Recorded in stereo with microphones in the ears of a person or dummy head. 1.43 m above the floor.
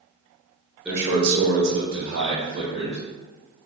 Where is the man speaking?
10° right (ahead or behind), 0.9 m; by 3.0 s 50° right (ahead or behind), 1.7 m.